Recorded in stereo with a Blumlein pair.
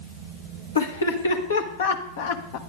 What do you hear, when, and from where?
0.8 s laughter: 70° left, 2 m; by 2.6 s 40° left, 0.8 m